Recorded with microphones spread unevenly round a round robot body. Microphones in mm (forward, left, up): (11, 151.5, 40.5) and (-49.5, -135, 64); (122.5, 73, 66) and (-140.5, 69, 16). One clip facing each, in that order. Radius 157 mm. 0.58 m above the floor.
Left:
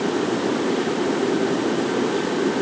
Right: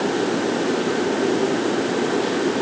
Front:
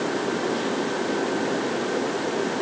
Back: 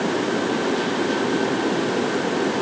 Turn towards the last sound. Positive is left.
No sound to turn to.